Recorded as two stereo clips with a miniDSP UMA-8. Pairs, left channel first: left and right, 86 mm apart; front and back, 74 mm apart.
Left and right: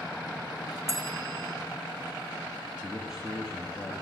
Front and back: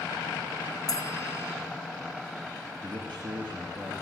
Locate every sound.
0.9 s a bell: 35° right, 2 m
2.8 s a man speaking: 175° right, 3.5 m